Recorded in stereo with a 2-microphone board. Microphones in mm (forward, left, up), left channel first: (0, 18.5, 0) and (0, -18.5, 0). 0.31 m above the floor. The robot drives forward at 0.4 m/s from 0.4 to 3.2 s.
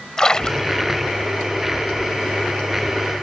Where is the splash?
20° left (ahead or behind); by 1.1 s 15° left (ahead or behind).